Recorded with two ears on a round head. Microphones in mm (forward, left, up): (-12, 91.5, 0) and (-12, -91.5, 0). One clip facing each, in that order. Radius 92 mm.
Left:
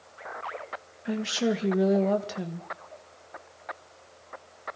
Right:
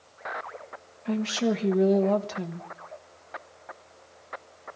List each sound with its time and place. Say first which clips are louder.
1.1 s a woman speaking: right 1 dB; 10° left (ahead or behind), 1.4 m